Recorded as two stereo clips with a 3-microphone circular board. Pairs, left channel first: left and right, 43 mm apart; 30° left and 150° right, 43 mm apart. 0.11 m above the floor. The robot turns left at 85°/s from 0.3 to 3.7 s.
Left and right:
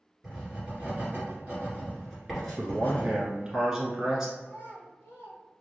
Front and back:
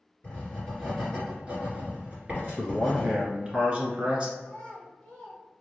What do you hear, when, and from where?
0.2 s writing: 5° right, 1.9 m; by 3.1 s 115° left, 1.9 m
2.6 s a man speaking: 60° right, 1.3 m; by 4.3 s 155° right, 1.3 m
4.4 s a child speaking: 100° left, 2.0 m